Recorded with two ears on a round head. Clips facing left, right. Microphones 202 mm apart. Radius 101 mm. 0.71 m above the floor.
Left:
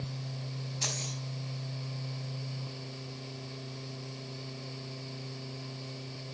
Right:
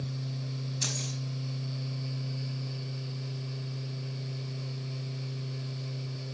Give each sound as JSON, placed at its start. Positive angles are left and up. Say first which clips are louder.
{"t": 0.8, "sound": "keys jangling", "louder": "right 2 dB", "side_deg": -20, "distance_m": 4.0}